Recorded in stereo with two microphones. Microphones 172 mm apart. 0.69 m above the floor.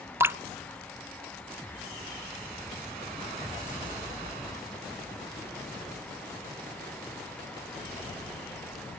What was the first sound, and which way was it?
Dripping, 15° right (ahead or behind).